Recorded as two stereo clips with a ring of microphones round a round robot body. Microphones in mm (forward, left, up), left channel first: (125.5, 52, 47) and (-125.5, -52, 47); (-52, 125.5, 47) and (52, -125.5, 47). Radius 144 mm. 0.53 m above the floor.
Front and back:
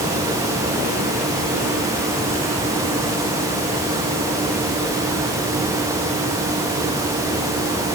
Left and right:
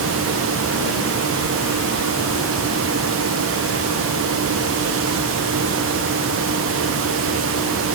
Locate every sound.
Only background noise.